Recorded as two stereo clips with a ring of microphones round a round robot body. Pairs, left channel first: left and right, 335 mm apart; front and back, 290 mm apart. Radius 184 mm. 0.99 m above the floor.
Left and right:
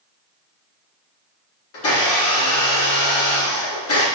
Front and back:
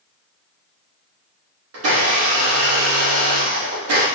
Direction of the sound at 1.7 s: 140° left.